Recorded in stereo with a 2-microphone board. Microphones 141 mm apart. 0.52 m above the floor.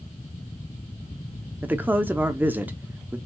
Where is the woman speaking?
15° right (ahead or behind), 0.7 m.